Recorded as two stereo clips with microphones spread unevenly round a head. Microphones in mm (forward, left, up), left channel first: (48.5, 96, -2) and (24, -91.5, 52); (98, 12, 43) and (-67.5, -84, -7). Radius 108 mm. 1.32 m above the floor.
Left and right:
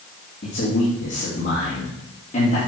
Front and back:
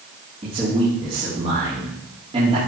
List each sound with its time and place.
0.4 s a man speaking: 140° left, 2.5 m